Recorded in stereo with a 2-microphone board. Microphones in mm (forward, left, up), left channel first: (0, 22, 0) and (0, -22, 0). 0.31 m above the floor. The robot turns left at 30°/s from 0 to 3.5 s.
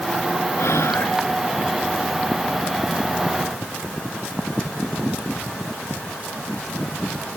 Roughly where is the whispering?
Left.